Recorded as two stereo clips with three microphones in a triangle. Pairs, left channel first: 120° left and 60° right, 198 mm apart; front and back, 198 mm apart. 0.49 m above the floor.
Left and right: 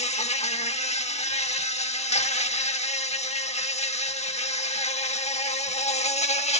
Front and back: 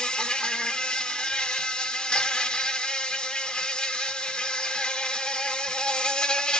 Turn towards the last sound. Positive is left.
turn(degrees=85)